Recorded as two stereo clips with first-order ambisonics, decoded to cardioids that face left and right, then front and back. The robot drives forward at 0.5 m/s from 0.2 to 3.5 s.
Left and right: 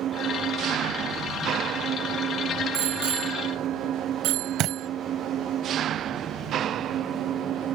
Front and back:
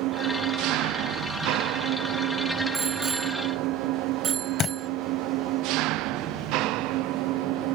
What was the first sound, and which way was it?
An engine running, 145° right.